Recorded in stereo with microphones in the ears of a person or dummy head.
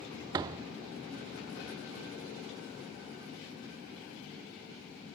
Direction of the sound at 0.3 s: 25° right (ahead or behind).